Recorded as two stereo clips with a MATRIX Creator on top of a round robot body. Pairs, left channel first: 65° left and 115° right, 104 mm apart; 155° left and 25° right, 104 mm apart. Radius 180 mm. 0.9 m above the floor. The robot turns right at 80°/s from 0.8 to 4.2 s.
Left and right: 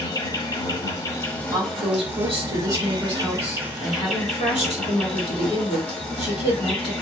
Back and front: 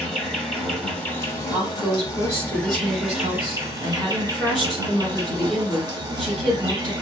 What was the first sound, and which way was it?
An insect, 80° left.